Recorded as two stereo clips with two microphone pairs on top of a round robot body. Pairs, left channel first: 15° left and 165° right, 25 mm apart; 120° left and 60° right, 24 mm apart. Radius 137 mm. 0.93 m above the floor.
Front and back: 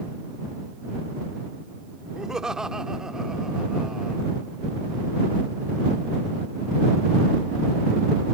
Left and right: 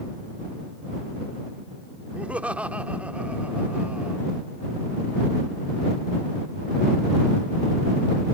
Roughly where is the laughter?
Right.